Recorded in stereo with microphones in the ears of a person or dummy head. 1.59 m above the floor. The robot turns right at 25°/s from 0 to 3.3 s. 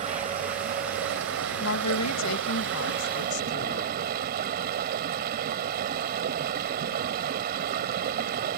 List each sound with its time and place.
0.0 s running water: 140° right; by 8.6 s 60° right
1.6 s a woman speaking: 80° left; by 4.0 s 125° left